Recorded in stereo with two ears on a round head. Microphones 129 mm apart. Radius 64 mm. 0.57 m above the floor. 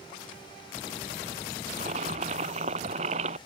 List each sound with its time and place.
1.7 s boiling: 45° right (ahead or behind)